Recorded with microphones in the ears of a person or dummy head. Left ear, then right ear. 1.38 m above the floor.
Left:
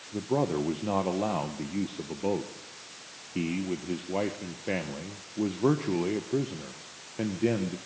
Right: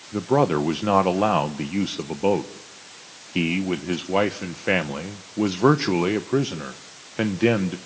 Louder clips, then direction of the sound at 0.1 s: Right 8 dB; 60° right (ahead or behind).